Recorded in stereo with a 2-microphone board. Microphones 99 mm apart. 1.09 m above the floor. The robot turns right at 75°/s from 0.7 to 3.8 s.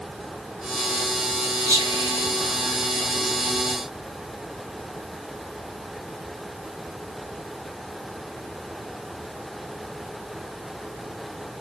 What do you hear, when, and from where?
1.7 s whispering: 30° right (ahead or behind), 0.9 m; by 3.4 s centre (ahead or behind), 0.9 m